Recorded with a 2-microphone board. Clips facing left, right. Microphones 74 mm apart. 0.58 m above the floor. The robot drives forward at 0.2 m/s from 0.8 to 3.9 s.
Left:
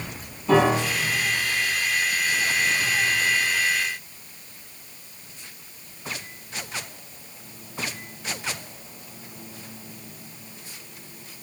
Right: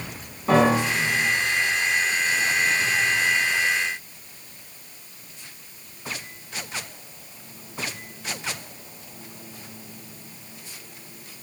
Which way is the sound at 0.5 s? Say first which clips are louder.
Right 1 dB; 65° right (ahead or behind).